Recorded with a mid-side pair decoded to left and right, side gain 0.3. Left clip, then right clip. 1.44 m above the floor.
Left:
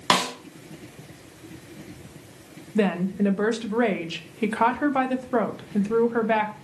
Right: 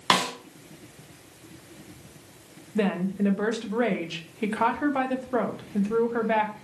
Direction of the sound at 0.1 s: 30° left.